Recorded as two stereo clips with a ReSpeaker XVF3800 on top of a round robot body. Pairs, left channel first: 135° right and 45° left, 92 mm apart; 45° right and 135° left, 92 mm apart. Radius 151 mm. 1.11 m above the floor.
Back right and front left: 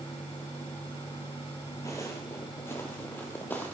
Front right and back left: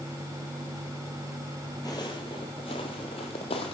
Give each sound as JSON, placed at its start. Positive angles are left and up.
{"t": 1.9, "sound": "footsteps", "azimuth_deg": -85, "distance_m": 1.1}